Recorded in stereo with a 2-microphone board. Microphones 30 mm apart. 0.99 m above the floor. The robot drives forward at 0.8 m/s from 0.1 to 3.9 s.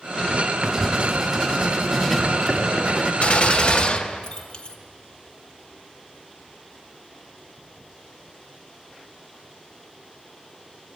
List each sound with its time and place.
0.6 s writing: 20° right (ahead or behind), 1.2 m; by 3.1 s 10° right (ahead or behind), 3 m
3.2 s a gunshot: 45° left (ahead or behind), 1.2 m; by 4.8 s 30° left (ahead or behind), 1.7 m